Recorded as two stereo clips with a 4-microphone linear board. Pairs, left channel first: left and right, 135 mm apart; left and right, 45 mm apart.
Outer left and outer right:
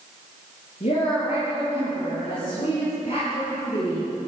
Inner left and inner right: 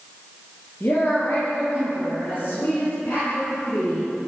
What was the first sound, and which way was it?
A woman speaking, 60° left (ahead or behind).